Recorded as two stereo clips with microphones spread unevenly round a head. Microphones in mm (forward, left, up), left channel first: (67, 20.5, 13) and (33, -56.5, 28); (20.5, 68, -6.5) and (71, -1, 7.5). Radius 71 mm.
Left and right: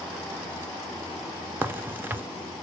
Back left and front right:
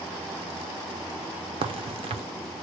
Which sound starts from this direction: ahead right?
A crack, at 1.6 s.